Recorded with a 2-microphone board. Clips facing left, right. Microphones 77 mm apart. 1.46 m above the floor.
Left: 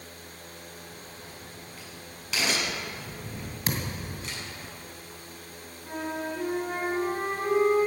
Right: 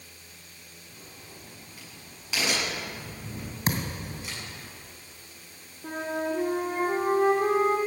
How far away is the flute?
About 3.5 m.